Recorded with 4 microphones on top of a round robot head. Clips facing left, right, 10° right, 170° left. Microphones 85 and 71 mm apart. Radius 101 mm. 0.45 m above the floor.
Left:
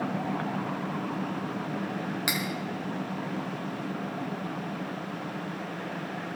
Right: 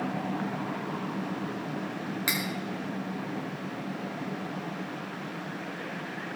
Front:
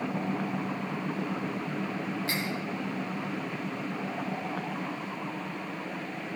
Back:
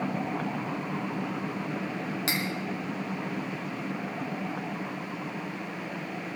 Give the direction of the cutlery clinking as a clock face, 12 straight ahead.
7 o'clock.